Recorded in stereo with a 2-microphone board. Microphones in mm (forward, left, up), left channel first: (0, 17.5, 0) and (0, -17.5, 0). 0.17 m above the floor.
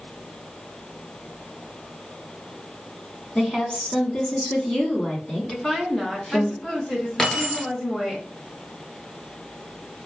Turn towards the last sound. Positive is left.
turn(degrees=25)  # may be behind; listen again after turning